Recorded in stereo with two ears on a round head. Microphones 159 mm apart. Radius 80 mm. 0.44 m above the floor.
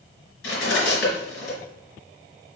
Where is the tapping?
I don't hear tapping.